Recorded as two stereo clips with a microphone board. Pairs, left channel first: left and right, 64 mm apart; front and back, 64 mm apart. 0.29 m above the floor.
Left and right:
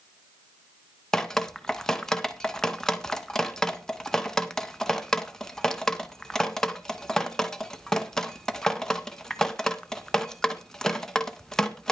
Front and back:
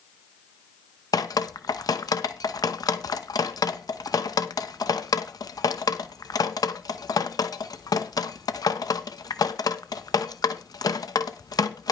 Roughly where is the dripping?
Ahead.